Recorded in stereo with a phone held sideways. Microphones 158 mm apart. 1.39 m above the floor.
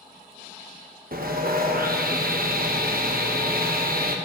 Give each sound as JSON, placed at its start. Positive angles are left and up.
{"t": 1.1, "sound": "sawing", "side_deg": -70, "distance_m": 1.0}